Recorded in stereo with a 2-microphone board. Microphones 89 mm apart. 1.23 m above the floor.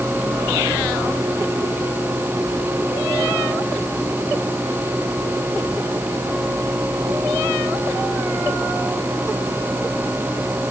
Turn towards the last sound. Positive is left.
No sound to turn to.